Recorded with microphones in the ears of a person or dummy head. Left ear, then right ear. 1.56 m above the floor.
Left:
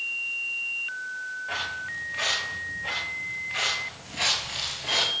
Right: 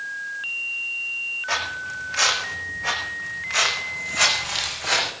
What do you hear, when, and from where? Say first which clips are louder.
1.5 s footsteps: right 5 dB; 75° right (ahead or behind), 6 m; by 5.1 s 55° right (ahead or behind), 7.5 m